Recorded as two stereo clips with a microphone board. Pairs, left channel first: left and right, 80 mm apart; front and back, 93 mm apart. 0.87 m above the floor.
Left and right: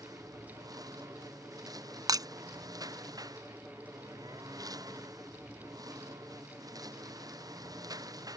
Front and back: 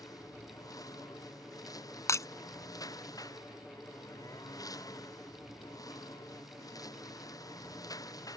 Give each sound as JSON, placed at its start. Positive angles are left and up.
{"t": 0.0, "sound": "a lawn mower", "azimuth_deg": -50}
{"t": 2.1, "sound": "breaking glass", "azimuth_deg": -55}